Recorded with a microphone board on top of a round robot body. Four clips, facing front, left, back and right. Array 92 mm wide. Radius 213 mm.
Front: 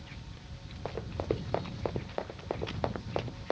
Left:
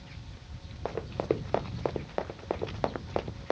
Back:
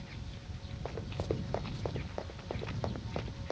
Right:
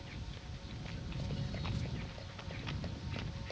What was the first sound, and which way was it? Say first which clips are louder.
Running footsteps: left 16 dB, front 4 dB; 80° left.